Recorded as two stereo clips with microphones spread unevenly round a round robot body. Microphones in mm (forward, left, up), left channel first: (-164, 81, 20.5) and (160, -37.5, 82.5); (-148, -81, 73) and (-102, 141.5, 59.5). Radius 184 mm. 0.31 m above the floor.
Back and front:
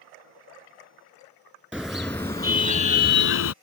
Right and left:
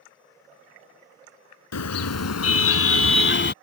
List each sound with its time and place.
1.7 s a car horn: 110° right; by 3.5 s 150° right